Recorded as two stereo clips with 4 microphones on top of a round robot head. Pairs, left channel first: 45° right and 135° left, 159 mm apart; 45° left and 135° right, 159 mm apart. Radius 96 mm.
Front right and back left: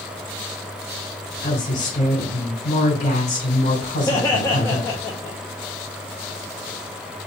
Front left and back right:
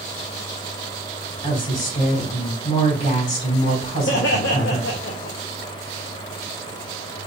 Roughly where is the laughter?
Ahead left.